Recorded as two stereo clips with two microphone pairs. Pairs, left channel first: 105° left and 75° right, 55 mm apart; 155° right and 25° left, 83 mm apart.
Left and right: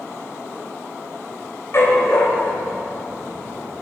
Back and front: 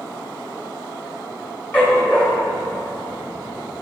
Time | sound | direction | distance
1.7 | a dog barking | 135° left | 1.5 m